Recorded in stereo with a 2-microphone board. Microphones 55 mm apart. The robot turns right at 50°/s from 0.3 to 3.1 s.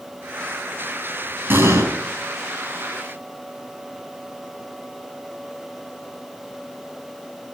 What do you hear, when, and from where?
1.5 s an explosion: 45° right (ahead or behind), 4.5 m; by 1.9 s 60° right (ahead or behind), 4.5 m